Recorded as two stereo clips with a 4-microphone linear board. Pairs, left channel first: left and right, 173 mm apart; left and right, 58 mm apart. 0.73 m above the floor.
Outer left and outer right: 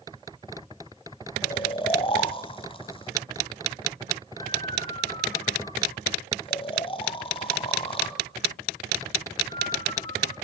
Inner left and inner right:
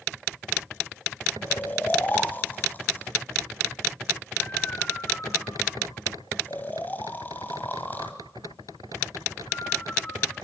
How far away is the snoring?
About 1.4 m.